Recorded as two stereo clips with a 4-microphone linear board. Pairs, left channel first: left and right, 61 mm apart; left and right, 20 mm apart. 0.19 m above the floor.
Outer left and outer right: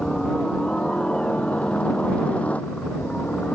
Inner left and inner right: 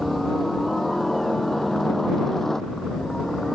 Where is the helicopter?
10° left (ahead or behind); by 3.5 s 25° left (ahead or behind).